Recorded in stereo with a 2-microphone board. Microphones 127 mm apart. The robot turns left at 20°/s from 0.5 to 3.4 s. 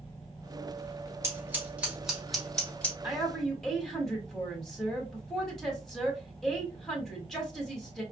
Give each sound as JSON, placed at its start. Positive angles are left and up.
{"t": 1.2, "sound": "scissors", "side_deg": -20, "distance_m": 1.7}
{"t": 3.0, "sound": "a woman speaking", "side_deg": -5, "distance_m": 1.8}